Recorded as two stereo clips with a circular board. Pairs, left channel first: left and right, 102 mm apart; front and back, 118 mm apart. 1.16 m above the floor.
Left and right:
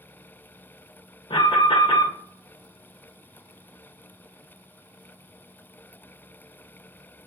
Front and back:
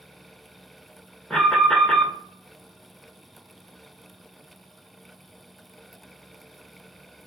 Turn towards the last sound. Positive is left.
turn(degrees=85)